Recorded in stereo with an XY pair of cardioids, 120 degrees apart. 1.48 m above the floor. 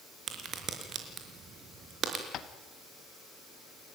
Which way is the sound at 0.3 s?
45° right.